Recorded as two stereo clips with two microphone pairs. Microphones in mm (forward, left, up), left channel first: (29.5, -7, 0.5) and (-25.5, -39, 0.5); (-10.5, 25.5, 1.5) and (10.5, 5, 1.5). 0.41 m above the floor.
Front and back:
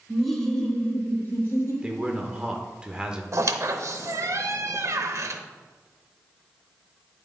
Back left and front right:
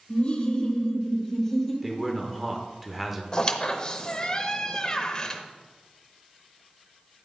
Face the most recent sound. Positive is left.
turn(degrees=-165)